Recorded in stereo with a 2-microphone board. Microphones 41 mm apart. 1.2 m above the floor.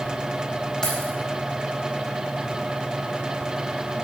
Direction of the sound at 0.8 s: 15° left (ahead or behind).